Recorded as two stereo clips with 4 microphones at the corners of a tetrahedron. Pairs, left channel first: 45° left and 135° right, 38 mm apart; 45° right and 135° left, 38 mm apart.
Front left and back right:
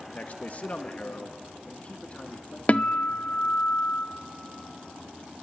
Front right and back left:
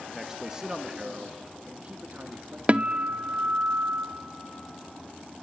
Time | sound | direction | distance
0.1 | a man speaking | 55° left | 1.2 m
2.7 | a guitar | 90° left | 0.7 m